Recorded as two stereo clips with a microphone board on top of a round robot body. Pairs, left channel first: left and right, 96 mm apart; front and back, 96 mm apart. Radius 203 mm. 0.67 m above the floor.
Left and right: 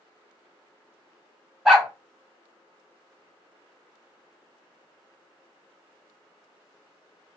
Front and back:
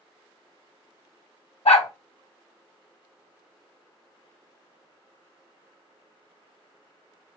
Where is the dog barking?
5° right, 2.5 m.